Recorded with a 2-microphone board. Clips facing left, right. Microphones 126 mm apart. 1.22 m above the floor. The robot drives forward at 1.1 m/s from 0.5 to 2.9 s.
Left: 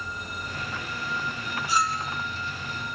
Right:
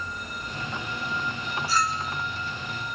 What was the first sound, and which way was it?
A clink, 20° left (ahead or behind).